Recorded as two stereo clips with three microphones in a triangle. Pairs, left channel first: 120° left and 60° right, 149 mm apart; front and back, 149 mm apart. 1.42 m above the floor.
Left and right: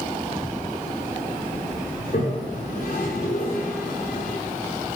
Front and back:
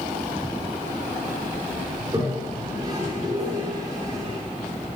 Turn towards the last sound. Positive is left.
turn(degrees=120)